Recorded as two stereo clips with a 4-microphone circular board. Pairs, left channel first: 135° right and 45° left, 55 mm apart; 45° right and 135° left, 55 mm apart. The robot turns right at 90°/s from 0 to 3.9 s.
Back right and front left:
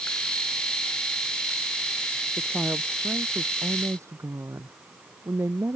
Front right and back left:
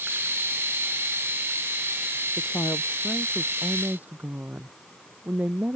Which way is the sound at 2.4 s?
60° right.